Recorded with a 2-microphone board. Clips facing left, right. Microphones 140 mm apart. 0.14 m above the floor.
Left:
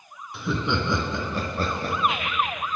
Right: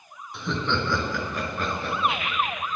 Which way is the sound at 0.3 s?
Centre (ahead or behind).